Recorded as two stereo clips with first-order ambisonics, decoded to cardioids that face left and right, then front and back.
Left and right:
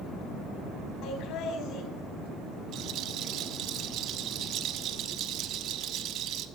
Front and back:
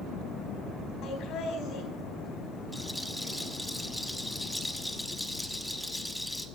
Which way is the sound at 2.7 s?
90° right.